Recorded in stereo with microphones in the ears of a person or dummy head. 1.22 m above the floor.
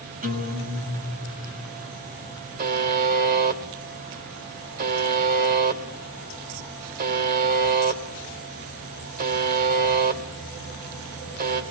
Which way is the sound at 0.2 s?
40° right (ahead or behind).